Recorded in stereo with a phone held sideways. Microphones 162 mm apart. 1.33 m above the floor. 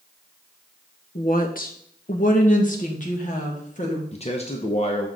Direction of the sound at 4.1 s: 40° left (ahead or behind).